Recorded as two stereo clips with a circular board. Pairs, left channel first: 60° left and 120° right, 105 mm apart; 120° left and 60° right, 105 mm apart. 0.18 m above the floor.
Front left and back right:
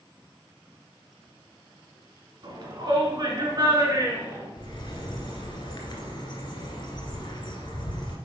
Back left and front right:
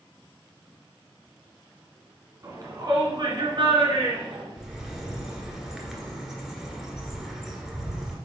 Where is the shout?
105° right, 2 m; by 4.5 s 70° right, 3 m.